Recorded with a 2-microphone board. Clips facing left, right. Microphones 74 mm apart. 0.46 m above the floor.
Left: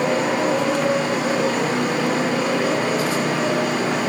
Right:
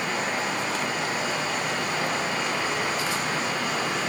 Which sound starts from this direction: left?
A motorcycle, at 0.0 s.